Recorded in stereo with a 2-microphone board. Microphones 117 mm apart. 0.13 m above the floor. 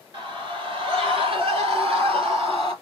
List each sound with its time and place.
0.1 s a scream: 45° right (ahead or behind), 2.5 m; by 2.7 s 55° right (ahead or behind), 4 m